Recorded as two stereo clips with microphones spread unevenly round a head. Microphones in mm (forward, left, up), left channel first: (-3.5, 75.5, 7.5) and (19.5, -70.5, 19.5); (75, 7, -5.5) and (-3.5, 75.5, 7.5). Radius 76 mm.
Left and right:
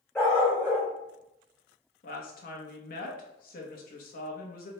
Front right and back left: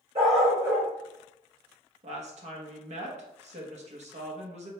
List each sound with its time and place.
0.1 s a dog barking: 175° right, 1.6 m
2.0 s a woman speaking: 130° left, 1.0 m